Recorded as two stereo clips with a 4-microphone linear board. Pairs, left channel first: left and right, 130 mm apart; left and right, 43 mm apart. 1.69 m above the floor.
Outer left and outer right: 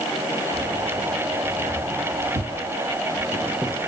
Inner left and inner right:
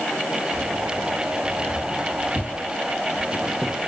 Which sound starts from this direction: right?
Keys jangling, at 0.5 s.